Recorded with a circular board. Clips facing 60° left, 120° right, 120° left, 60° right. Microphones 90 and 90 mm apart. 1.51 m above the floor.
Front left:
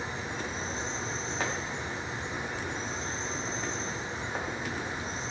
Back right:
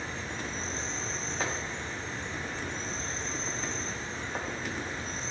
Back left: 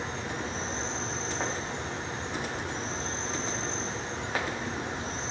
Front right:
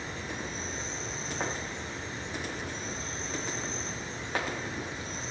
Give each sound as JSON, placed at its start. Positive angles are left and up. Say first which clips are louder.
{"t": 0.0, "sound": "an insect", "louder": "front left 2 dB, back left 4 dB", "azimuth_deg": 135, "distance_m": 3.5}